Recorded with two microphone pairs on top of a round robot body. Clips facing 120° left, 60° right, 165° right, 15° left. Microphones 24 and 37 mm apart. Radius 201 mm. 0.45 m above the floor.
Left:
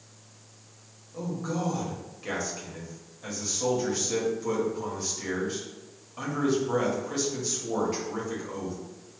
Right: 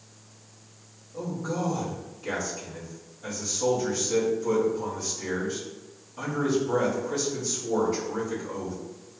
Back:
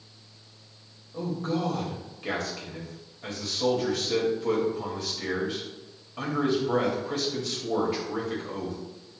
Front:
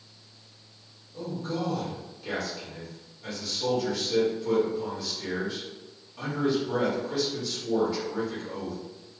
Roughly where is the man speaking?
Behind.